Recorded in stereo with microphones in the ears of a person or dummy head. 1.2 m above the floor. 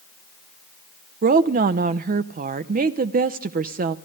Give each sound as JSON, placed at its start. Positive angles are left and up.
{"t": 1.2, "sound": "a woman speaking", "side_deg": -40, "distance_m": 0.6}